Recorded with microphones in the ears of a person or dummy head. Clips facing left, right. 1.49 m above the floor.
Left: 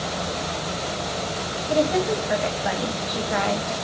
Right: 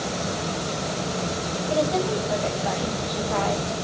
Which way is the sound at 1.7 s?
25° left (ahead or behind).